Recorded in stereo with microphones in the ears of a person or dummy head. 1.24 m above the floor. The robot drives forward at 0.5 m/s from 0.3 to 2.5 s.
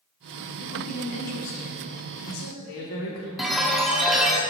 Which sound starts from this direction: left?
A woman speaking, at 0.6 s.